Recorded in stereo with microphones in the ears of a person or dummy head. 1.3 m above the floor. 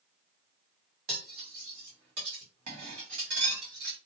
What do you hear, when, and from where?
1.1 s cutlery clinking: 60° right (ahead or behind), 1.6 m